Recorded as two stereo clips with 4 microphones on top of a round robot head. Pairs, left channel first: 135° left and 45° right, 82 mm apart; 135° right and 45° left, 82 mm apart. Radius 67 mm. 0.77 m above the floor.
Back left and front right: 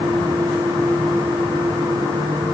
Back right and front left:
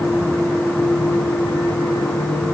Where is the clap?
I don't hear a clap.